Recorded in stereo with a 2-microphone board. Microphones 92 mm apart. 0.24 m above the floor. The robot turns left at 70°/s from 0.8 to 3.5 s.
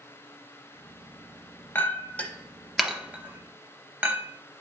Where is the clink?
20° left (ahead or behind), 0.6 m; by 4.3 s 20° right (ahead or behind), 0.6 m.